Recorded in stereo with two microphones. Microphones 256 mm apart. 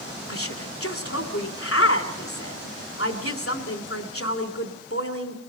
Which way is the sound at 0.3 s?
60° left (ahead or behind).